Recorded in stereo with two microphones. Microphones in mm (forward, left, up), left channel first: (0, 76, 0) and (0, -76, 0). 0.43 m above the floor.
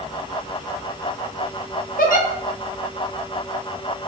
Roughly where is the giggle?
Left.